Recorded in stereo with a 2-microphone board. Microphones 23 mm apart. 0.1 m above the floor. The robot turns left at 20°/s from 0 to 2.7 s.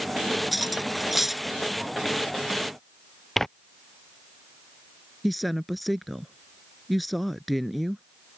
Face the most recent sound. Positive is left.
turn(degrees=0)  # may be behind; listen again after turning